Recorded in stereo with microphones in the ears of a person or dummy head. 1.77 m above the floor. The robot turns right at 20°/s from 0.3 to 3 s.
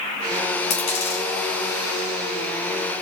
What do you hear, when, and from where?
0.7 s a dropped coin: 45° left (ahead or behind), 1.6 m; by 1.2 s 40° left (ahead or behind), 1.6 m